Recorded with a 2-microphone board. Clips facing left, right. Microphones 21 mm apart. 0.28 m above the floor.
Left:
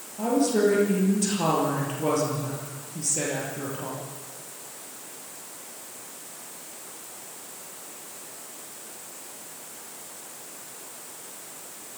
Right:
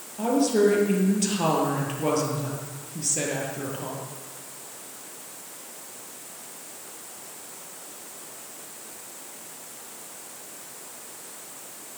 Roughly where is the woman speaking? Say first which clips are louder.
Right 1 dB; centre.